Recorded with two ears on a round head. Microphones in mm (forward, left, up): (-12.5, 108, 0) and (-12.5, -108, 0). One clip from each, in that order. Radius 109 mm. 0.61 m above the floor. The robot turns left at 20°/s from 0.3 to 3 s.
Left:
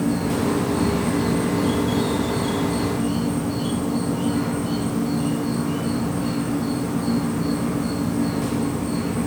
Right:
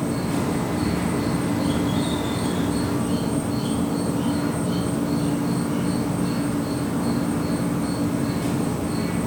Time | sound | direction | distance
0.0 | an insect | 80° left | 2.5 m